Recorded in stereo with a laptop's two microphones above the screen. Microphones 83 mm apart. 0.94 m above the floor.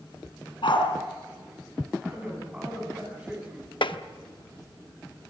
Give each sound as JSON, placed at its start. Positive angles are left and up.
{"t": 0.6, "sound": "a dog barking", "side_deg": 75, "distance_m": 4.0}
{"t": 2.0, "sound": "a man speaking", "side_deg": -10, "distance_m": 9.5}
{"t": 3.8, "sound": "tapping", "side_deg": 75, "distance_m": 0.9}